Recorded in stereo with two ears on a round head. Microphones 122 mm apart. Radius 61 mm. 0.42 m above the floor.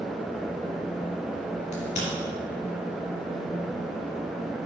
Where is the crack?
45° left (ahead or behind), 3 m.